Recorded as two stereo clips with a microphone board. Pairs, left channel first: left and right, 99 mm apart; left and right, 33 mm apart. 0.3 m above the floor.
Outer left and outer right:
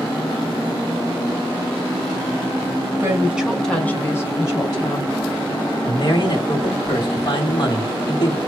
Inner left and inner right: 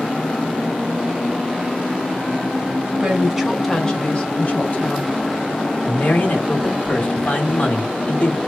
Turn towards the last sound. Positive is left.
turn(degrees=50)  # may be behind; listen again after turning